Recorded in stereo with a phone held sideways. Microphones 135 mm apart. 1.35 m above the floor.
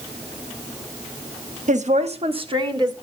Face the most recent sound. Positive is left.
turn(degrees=-30)  # may be behind; listen again after turning